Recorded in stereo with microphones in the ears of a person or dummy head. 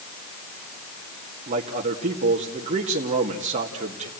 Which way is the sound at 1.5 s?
40° right (ahead or behind).